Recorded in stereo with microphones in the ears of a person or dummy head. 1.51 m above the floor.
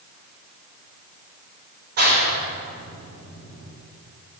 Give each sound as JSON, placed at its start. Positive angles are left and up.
{"t": 2.0, "sound": "a clap", "side_deg": -50, "distance_m": 3.5}